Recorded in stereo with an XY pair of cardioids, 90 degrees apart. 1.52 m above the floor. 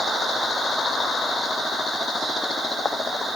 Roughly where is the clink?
I don't hear a clink.